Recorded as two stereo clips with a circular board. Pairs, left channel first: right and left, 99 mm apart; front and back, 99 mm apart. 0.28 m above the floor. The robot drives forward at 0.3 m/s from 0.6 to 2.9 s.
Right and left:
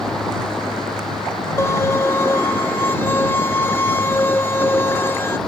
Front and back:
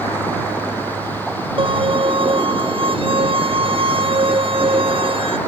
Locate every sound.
1.6 s a violin: 155° right